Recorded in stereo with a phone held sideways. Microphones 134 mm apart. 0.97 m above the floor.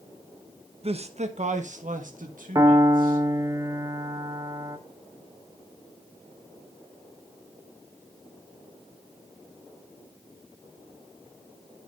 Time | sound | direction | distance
0.8 | a man speaking | 45° right (ahead or behind) | 0.9 m
2.5 | a piano | 25° right (ahead or behind) | 0.9 m